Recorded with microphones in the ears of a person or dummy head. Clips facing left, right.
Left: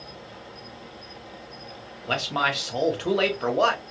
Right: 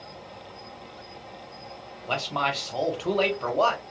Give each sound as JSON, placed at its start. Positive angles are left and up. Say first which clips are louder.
{"t": 0.0, "sound": "an insect", "louder": "left 1 dB", "side_deg": 10, "distance_m": 0.8}
{"t": 2.1, "sound": "a man speaking", "louder": "left 1 dB", "side_deg": 15, "distance_m": 0.9}